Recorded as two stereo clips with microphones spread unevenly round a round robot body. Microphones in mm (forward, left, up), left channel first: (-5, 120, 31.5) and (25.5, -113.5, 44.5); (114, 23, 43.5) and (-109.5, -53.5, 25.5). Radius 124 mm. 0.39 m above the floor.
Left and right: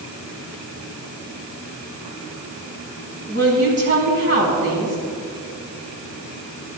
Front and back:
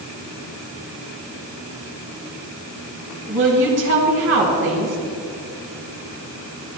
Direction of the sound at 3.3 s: 125° right.